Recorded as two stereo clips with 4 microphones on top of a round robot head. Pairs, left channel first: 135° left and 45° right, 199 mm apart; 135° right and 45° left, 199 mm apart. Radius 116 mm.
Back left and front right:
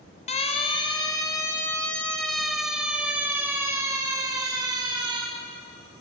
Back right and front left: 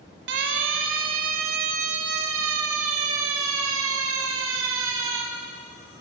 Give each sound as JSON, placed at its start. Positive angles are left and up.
{"t": 0.3, "sound": "a siren", "azimuth_deg": 80, "distance_m": 2.5}